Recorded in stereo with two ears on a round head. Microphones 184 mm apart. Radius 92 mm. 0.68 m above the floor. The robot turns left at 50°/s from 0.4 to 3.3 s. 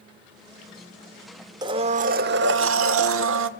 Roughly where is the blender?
Ahead.